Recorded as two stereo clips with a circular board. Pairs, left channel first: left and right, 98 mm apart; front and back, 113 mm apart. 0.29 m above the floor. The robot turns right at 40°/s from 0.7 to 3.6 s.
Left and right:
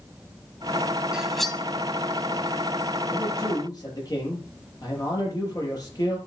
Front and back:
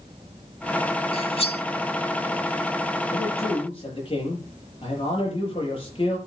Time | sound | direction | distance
1.1 | cutlery clinking | 10° right | 1.2 m
3.1 | a man speaking | 20° left | 7.5 m